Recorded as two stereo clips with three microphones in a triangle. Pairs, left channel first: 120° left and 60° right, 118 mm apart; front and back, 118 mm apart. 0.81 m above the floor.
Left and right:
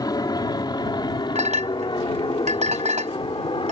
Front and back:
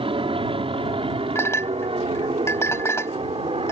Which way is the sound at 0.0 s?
165° left.